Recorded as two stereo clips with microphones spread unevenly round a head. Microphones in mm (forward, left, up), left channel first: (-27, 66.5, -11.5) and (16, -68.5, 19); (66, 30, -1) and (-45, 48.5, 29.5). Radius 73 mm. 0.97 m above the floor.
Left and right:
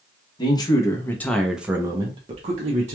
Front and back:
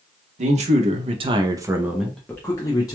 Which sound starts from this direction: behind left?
A man speaking, at 0.4 s.